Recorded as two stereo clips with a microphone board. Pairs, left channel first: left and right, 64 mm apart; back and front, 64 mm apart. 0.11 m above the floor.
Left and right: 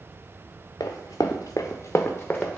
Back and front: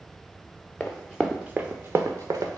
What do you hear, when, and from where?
0.8 s running footsteps: 105° left, 0.7 m; by 2.6 s 15° left, 0.7 m